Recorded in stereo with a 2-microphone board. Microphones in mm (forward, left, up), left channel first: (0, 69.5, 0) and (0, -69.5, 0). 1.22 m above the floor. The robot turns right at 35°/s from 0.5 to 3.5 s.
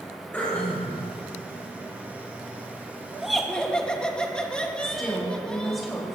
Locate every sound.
0.3 s throat clearing: 10° left (ahead or behind), 5.5 m; by 1.0 s 5° right (ahead or behind), 5.5 m
3.2 s laughter: 5° right (ahead or behind), 2.0 m; by 5.8 s 5° left (ahead or behind), 2.0 m
4.8 s a woman speaking: centre (ahead or behind), 5 m